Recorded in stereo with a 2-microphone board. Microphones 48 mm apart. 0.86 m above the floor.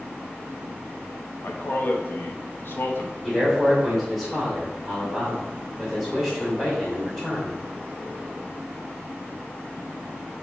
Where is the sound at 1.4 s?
50° left (ahead or behind), 1.1 m.